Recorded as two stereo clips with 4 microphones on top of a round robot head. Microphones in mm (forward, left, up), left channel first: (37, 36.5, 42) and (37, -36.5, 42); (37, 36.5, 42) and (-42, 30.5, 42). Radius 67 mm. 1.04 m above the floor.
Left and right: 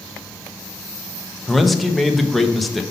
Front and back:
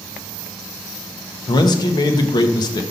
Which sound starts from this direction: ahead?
A man speaking, at 1.5 s.